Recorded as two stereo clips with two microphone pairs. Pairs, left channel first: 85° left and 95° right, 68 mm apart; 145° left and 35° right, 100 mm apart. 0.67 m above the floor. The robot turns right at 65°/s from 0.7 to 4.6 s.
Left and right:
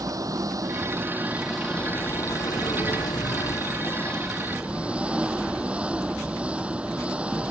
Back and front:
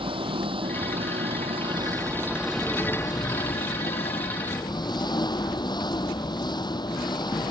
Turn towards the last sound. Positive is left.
turn(degrees=-170)